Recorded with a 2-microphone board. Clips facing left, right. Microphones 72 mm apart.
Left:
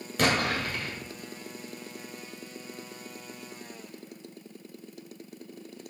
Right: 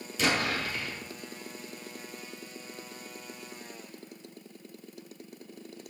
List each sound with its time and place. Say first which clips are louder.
0.2 s an explosion: left 2 dB; 60° left (ahead or behind), 1.6 m